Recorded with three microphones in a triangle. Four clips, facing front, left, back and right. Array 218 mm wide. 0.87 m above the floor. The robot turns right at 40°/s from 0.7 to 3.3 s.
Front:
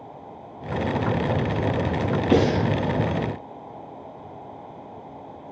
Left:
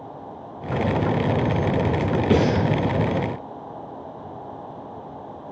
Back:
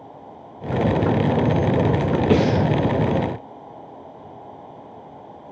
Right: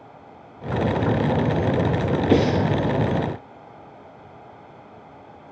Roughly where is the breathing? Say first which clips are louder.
Right 1 dB, even; behind left.